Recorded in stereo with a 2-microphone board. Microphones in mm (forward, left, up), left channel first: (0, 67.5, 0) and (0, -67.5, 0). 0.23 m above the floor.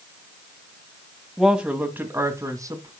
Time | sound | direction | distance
1.4 | a woman speaking | centre (ahead or behind) | 1.6 m